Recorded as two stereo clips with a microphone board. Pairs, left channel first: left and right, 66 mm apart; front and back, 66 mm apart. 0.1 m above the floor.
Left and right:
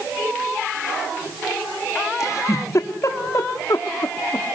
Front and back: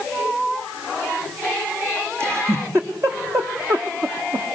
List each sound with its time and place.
2.2 s a giggle: 130° left, 1.7 m